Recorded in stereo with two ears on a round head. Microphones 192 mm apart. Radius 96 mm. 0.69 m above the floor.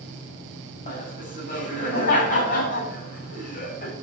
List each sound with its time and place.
0.9 s laughter: 40° left (ahead or behind), 4 m